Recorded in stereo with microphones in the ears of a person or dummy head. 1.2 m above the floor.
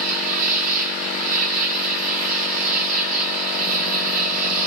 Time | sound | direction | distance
0.0 | an insect | 45° right (ahead or behind) | 1.8 m